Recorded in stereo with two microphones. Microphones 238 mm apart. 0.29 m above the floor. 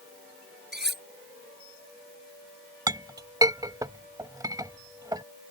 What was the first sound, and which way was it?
Cutlery clinking, 45° right (ahead or behind).